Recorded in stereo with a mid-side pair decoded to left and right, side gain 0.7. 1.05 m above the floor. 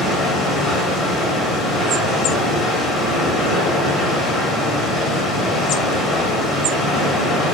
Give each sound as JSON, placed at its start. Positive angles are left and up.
{"t": 0.0, "sound": "running water", "azimuth_deg": 20, "distance_m": 1.3}